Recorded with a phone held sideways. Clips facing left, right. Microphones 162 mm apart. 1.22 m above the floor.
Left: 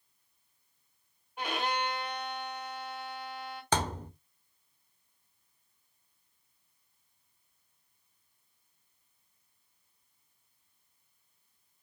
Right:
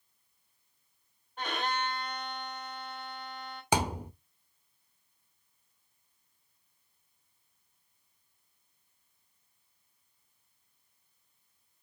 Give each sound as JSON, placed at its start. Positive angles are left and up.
{"t": 1.4, "sound": "a violin", "side_deg": 10, "distance_m": 4.5}
{"t": 3.7, "sound": "a thud", "side_deg": -10, "distance_m": 1.2}